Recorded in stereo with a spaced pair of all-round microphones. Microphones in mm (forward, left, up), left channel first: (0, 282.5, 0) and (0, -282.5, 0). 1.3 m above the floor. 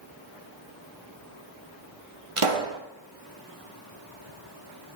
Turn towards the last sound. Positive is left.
turn(degrees=-60)  # may be behind; listen again after turning